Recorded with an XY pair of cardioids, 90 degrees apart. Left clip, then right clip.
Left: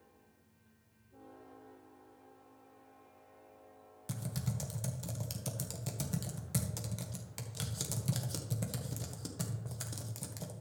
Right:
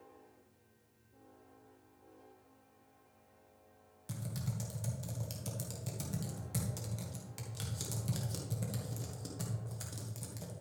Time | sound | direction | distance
4.1 | typing on a keyboard | 35° left | 1.6 m